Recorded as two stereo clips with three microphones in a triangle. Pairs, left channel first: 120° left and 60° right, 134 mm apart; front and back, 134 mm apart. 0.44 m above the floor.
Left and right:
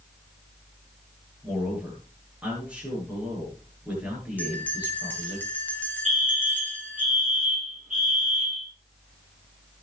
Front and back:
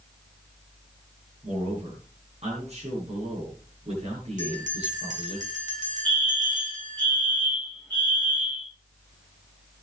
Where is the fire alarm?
80° right, 4.5 m.